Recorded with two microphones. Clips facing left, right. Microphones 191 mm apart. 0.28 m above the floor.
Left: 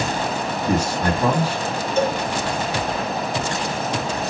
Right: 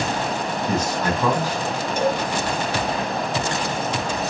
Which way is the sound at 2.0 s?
15° right (ahead or behind).